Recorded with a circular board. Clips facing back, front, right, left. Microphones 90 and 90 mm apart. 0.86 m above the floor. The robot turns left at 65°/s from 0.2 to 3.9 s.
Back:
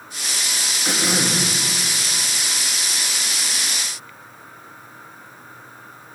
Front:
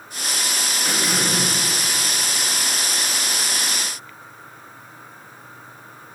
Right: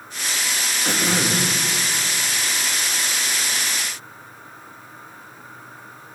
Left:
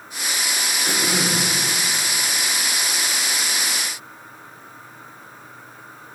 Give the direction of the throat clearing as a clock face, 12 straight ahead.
3 o'clock.